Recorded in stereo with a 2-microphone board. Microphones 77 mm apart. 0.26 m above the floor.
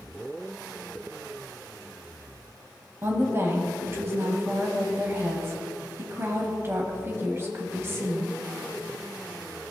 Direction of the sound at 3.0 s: 35° right (ahead or behind).